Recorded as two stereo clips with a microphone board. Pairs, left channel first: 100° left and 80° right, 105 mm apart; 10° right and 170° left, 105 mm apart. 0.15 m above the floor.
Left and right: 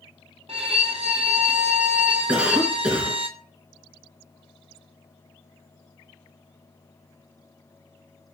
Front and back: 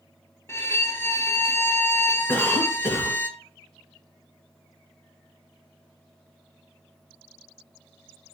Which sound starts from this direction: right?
A violin, at 0.5 s.